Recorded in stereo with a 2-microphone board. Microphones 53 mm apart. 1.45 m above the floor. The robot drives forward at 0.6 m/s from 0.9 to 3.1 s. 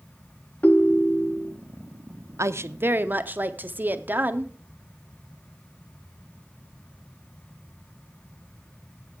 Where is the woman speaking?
65° right (ahead or behind), 0.5 m; by 4.5 s 35° right (ahead or behind), 0.8 m.